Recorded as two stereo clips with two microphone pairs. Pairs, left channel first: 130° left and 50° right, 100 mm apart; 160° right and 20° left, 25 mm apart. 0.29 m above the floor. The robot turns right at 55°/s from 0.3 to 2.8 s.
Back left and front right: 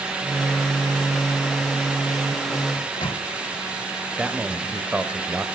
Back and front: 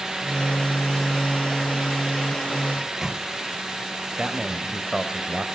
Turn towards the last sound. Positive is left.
turn(degrees=15)